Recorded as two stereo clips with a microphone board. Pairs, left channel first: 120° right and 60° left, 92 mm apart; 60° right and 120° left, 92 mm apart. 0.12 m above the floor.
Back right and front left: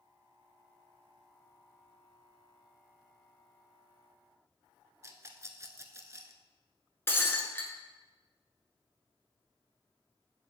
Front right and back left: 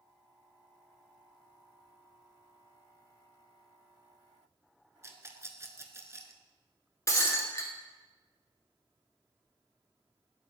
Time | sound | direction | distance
5.0 | a rattle | 90° left | 0.6 m
7.1 | breaking glass | 75° right | 1.0 m